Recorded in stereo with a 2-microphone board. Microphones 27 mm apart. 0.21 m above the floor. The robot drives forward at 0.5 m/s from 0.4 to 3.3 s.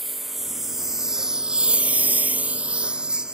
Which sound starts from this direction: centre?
A lawn mower, at 0.0 s.